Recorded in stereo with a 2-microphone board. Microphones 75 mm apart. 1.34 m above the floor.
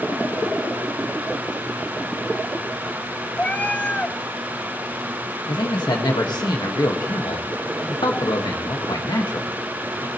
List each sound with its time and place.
3.4 s a cat meowing: 20° left (ahead or behind), 0.7 m
5.5 s a man speaking: 75° left (ahead or behind), 1.8 m